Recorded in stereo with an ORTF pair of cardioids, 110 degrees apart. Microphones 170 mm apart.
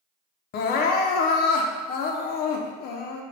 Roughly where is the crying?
Ahead left.